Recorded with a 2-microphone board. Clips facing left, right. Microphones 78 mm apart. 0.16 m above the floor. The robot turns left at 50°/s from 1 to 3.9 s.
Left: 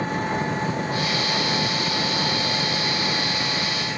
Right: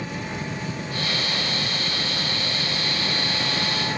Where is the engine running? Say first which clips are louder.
Left 6 dB; 130° left; by 4.0 s 15° right.